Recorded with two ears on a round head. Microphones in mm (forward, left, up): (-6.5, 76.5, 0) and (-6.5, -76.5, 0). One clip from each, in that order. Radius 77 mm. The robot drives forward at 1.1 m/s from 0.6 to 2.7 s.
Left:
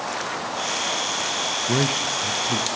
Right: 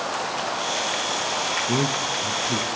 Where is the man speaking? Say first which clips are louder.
Left 1 dB; 75° left (ahead or behind), 0.9 m; by 2.7 s 35° left (ahead or behind), 1.6 m.